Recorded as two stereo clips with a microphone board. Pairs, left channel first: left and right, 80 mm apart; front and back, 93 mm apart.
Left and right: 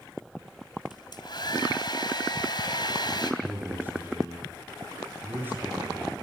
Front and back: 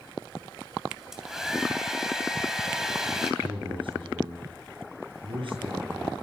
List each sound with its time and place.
0.9 s a hair dryer: 95° left, 3 m
3.4 s a man speaking: 155° right, 9 m